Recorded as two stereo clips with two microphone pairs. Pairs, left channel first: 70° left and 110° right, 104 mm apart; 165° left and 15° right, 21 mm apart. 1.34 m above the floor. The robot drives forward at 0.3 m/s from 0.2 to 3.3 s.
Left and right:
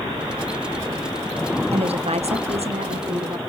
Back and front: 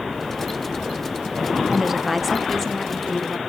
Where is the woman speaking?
95° right, 0.7 m; by 3.4 s 130° right, 0.9 m.